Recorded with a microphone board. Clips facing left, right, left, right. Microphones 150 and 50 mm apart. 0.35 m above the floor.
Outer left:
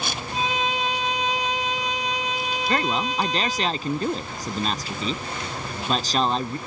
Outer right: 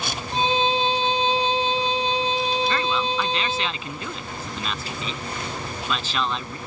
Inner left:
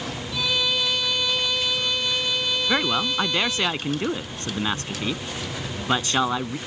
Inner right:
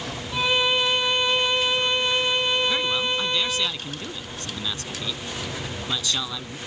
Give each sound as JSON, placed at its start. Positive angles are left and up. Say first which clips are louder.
{"t": 0.3, "sound": "a violin", "louder": "outer right 5 dB, inner right 4 dB", "side_deg": -30}
{"t": 2.7, "sound": "a man speaking", "louder": "even, inner left 1 dB", "side_deg": 40}